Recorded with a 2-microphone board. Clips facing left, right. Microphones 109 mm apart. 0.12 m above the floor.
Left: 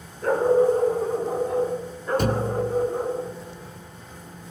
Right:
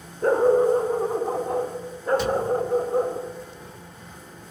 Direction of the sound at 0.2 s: 35° right (ahead or behind).